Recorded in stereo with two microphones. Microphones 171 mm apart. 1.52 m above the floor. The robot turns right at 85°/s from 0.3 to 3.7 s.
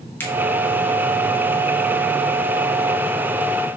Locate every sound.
0.2 s a finger snap: 10° left (ahead or behind), 1.1 m